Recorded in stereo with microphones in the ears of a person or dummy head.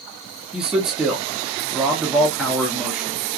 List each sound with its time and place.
0.5 s a man speaking: 5° right (ahead or behind), 0.8 m